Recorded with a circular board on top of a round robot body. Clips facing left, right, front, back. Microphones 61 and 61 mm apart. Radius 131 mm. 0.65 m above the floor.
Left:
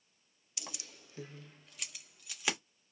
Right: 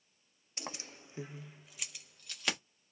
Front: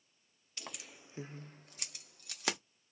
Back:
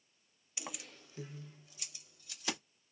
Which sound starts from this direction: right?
Keys jangling, at 0.6 s.